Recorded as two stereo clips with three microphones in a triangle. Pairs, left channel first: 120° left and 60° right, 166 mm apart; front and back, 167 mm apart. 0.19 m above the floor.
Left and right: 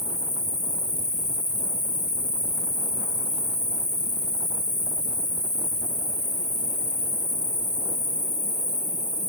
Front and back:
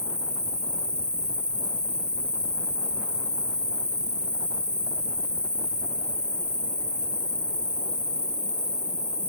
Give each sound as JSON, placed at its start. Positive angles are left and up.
{"t": 0.0, "sound": "an insect", "azimuth_deg": -85, "distance_m": 1.0}